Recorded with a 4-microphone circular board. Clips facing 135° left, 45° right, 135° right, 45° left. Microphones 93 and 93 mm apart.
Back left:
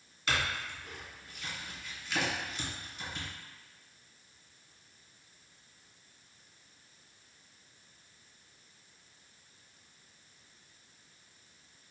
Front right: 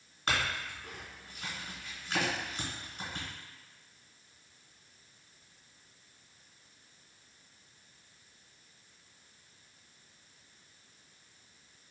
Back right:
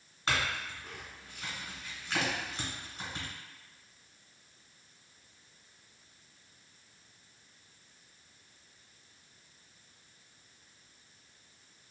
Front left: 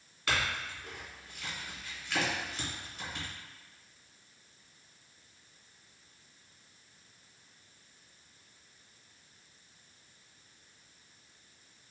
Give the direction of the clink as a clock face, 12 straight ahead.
3 o'clock.